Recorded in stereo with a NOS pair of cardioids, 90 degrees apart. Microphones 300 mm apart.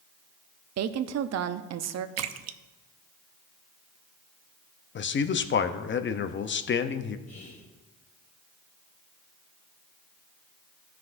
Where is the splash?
55° right, 0.6 m.